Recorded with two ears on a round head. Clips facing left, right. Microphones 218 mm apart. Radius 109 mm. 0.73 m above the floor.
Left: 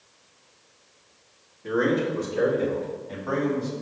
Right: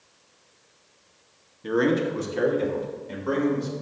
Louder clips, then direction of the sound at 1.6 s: Right 1 dB; 45° right (ahead or behind).